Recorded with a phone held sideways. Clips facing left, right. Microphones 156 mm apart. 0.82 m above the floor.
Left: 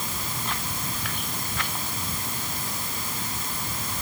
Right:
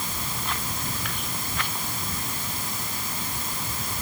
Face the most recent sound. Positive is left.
No sound to turn to.